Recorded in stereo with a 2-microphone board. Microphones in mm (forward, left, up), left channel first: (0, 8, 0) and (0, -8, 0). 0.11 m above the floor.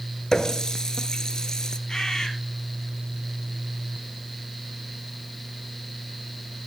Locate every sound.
0.3 s a running tap: 40° left (ahead or behind), 1.0 m
1.9 s a bird: 45° left (ahead or behind), 3 m